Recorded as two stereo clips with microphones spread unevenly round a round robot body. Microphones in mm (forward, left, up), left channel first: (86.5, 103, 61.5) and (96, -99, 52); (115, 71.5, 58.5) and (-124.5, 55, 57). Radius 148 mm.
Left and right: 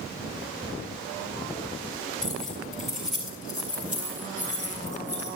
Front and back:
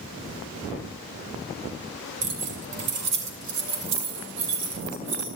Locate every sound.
2.2 s keys jangling: straight behind, 3.5 m; by 5.3 s 165° right, 5 m